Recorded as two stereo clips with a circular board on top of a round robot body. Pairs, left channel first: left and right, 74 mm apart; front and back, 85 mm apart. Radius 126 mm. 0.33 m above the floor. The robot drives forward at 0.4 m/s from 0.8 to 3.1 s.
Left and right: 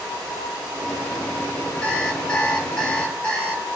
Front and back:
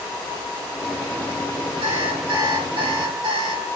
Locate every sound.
1.8 s an alarm clock: 170° left, 5.5 m